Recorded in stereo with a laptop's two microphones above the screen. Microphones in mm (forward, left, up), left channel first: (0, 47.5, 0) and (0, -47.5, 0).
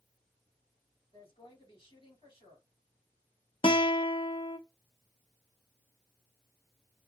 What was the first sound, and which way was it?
A woman speaking, 70° left (ahead or behind).